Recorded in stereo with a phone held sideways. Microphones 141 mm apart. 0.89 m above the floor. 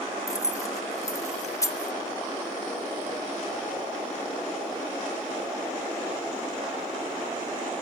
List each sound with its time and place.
0.3 s keys jangling: 25° left (ahead or behind), 1.1 m